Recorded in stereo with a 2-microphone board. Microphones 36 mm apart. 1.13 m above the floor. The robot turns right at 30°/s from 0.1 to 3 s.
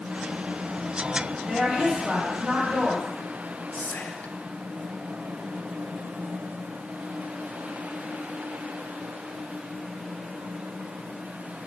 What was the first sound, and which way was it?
A woman speaking, 150° right.